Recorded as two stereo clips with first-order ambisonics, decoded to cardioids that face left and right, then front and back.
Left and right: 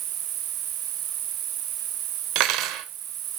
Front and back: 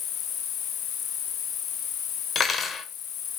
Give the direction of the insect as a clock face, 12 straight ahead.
2 o'clock.